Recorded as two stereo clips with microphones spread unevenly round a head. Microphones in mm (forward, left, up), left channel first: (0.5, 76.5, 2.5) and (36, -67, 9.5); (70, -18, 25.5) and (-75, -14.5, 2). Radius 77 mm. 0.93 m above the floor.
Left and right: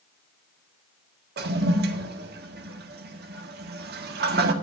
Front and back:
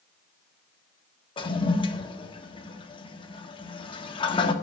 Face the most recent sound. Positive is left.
turn(degrees=-60)